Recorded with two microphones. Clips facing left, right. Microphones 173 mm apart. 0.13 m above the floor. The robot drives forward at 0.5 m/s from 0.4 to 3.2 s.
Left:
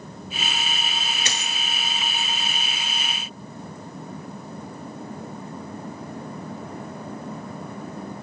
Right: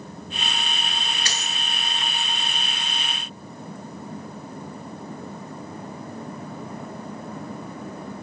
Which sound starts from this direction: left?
A dropped coin, at 1.2 s.